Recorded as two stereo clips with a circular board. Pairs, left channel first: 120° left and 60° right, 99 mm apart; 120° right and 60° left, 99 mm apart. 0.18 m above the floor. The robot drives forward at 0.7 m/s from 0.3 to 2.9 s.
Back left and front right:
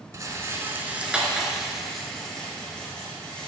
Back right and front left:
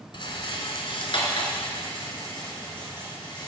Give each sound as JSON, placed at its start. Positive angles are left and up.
{"t": 0.1, "sound": "a rattle", "azimuth_deg": -110, "distance_m": 1.0}